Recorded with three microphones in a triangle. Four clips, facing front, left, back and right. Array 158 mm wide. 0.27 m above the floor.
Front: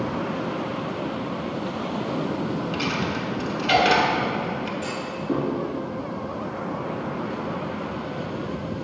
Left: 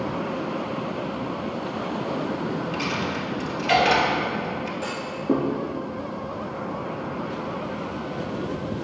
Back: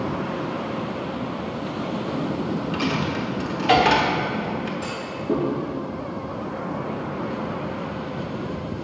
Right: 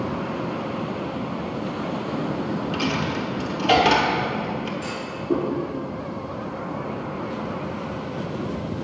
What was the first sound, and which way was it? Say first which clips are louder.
A dropped coin: right 2 dB, back 2 dB; 135° right.